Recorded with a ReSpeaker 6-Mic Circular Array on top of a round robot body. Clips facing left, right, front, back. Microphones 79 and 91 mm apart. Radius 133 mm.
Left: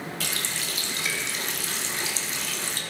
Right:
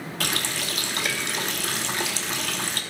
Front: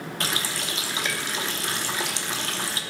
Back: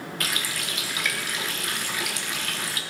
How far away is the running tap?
About 0.9 m.